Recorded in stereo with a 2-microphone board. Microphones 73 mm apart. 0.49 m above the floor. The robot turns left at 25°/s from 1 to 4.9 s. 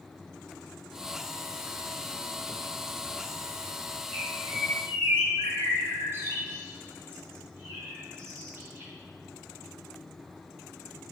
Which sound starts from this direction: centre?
A bird, at 4.1 s.